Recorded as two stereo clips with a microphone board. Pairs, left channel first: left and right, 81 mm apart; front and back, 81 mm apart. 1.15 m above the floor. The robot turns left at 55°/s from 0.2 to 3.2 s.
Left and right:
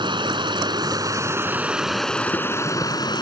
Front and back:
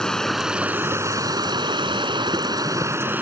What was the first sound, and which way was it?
Running water, 85° right.